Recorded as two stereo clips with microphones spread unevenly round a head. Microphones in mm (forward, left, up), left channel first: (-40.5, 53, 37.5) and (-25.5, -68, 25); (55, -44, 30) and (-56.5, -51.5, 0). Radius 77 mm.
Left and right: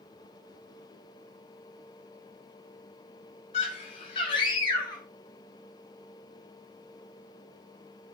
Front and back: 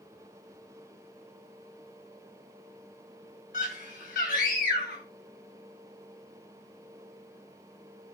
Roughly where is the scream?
Ahead left.